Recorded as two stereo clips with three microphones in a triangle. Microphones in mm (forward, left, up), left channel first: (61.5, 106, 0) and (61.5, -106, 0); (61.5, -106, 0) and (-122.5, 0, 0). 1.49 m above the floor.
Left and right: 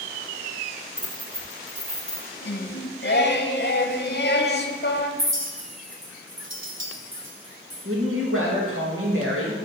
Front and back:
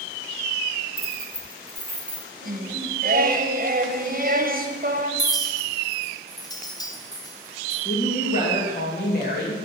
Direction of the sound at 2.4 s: 115° left.